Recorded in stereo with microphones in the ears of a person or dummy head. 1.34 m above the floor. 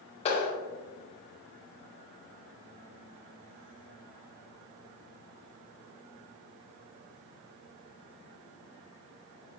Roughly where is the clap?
Left.